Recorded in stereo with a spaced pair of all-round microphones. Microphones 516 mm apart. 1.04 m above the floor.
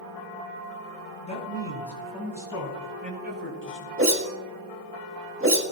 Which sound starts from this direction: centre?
A man speaking, at 1.2 s.